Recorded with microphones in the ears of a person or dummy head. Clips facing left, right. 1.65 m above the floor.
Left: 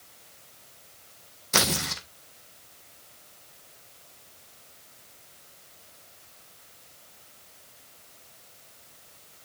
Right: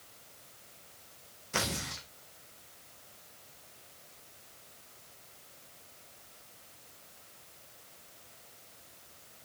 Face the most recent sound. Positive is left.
turn(degrees=65)  # may be behind; listen again after turning